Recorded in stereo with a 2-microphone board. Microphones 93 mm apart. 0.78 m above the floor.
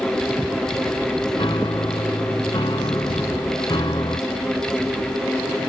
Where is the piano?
55° left (ahead or behind).